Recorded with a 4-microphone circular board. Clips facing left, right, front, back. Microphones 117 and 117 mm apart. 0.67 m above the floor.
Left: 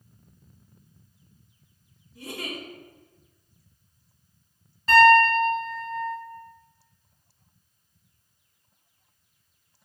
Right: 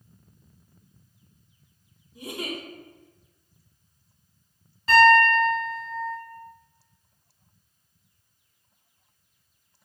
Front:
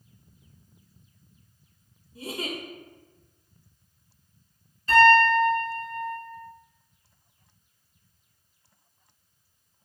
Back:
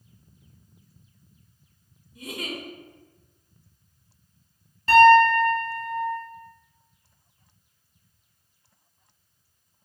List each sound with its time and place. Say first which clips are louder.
2.1 s a giggle: right 2 dB, front 1 dB; 30° right, 0.6 m
4.9 s a piano: left 1 dB, back 4 dB; straight behind, 1.5 m